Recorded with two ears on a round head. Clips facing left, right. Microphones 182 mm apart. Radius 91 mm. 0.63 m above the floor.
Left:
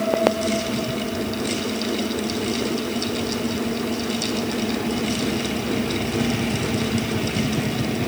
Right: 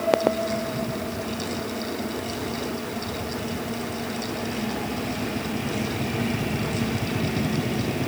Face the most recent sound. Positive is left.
No sound to turn to.